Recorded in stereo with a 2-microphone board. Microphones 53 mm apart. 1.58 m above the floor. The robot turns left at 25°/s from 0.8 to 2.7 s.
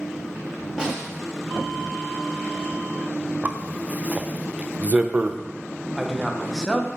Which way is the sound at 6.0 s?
5° left (ahead or behind).